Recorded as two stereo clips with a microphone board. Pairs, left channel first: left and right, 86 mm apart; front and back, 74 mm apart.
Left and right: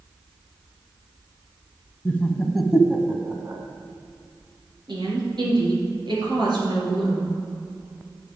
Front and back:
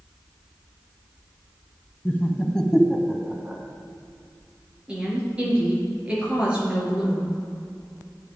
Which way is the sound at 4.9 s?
105° right.